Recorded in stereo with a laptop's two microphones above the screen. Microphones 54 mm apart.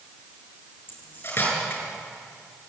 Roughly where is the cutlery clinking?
Left.